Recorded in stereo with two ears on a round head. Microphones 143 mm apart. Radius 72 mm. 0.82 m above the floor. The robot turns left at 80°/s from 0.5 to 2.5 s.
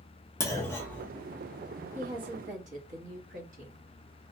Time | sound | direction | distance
0.4 | a clunk | 20° left (ahead or behind) | 0.7 m
1.9 | a woman speaking | 15° right | 1.1 m